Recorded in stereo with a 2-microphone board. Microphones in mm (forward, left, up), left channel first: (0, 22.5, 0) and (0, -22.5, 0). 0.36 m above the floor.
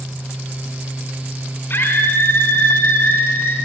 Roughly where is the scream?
Left.